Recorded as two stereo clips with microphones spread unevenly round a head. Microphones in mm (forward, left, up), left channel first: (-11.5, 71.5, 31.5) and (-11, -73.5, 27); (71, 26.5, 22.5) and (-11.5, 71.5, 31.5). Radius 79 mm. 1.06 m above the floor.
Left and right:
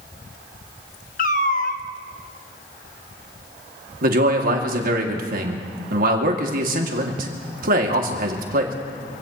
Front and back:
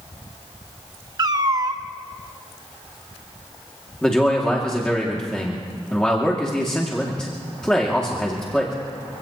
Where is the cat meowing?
120° left, 0.8 m.